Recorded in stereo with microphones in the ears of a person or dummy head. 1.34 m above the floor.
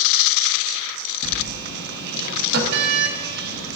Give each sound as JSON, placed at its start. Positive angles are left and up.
{"t": 1.2, "sound": "a sliding door", "side_deg": -60, "distance_m": 0.9}